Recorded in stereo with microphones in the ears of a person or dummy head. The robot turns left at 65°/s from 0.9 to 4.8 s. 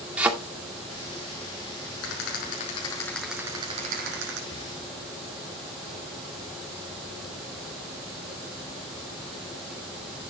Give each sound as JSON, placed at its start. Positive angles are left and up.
{"t": 0.2, "sound": "a thud", "side_deg": -5, "distance_m": 2.0}
{"t": 2.0, "sound": "a rattle", "azimuth_deg": 80, "distance_m": 5.5}
{"t": 4.5, "sound": "breathing", "side_deg": 25, "distance_m": 0.8}